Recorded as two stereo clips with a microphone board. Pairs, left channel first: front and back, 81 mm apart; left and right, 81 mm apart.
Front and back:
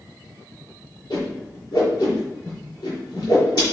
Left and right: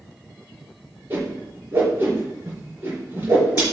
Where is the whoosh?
25° right, 4.5 m.